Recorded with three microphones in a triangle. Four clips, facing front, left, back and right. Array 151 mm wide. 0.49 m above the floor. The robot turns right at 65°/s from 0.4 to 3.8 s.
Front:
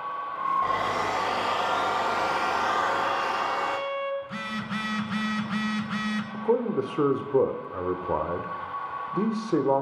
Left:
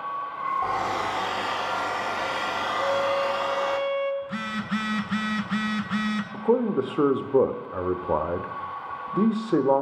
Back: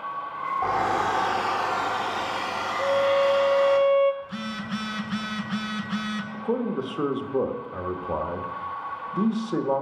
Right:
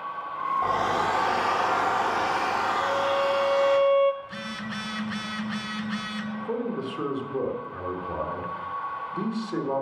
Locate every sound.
0.6 s a hair dryer: 175° right, 1.5 m; by 3.8 s 30° left, 1.5 m
2.8 s a violin: 160° left, 1.0 m; by 4.1 s 135° right, 1.0 m
4.2 s a phone buzzing: 65° left, 1.0 m
6.3 s a man speaking: 70° left, 1.0 m